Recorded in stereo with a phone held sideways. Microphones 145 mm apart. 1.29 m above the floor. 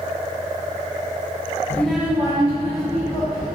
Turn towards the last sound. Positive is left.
turn(degrees=-55)  # may be behind; listen again after turning